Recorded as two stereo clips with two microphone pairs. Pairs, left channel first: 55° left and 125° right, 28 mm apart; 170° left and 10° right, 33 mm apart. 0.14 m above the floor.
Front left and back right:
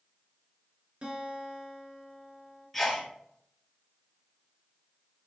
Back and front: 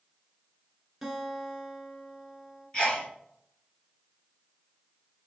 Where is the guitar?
90° right, 1.3 m.